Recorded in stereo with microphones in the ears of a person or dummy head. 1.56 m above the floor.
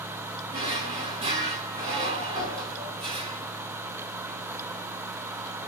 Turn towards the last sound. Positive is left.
turn(degrees=-30)  # may be behind; listen again after turning